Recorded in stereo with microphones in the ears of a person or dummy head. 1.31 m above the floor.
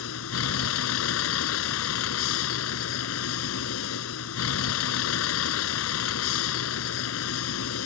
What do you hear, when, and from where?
0.0 s a vehicle: 75° left (ahead or behind)